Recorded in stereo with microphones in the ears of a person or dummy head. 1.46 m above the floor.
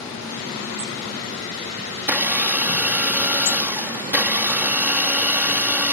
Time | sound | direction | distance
2.0 | a blender | 15° right (ahead or behind) | ?